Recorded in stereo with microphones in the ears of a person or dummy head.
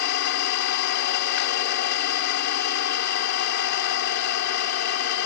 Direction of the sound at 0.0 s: 50° left (ahead or behind).